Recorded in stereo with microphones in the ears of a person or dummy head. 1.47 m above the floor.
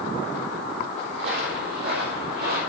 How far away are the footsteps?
About 2 m.